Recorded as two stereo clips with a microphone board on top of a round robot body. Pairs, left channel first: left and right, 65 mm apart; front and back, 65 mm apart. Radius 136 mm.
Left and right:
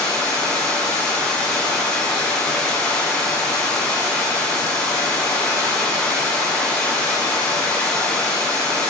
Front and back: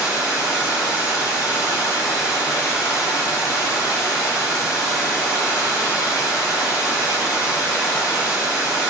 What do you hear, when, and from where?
0.0 s running water: 10° left, 7 m